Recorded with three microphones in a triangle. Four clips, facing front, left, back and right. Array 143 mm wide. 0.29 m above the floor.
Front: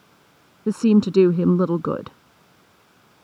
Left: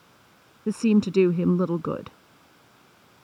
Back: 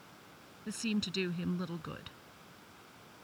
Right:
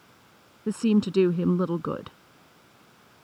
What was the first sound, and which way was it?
A woman speaking, 5° left.